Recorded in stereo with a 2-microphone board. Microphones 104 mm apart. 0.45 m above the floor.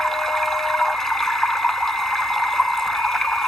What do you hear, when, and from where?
0.0 s running water: centre (ahead or behind)